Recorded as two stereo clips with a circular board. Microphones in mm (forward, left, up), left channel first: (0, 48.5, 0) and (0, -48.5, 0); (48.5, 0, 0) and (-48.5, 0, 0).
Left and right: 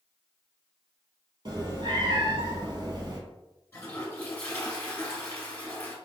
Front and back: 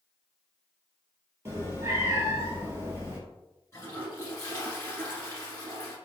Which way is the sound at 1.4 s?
120° right.